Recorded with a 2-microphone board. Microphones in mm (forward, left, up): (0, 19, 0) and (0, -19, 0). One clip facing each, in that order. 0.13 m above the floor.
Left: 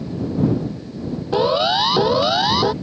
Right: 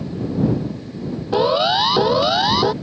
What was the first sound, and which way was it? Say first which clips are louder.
A siren: right 1 dB; 5° right (ahead or behind).